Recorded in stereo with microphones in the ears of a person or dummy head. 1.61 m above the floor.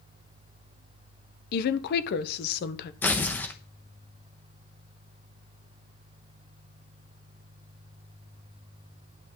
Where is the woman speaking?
50° left (ahead or behind), 1.1 m.